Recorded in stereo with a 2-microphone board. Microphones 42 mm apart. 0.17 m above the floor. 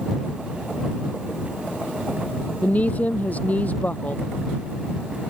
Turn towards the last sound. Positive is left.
turn(degrees=40)  # may be behind; listen again after turning